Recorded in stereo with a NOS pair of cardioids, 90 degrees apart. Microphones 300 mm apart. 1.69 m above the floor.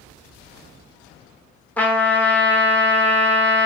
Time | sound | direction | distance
1.8 | a trumpet | 5° left | 0.9 m